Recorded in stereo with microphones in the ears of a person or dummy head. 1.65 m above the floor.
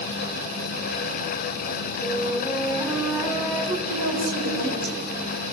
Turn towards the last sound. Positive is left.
turn(degrees=-85)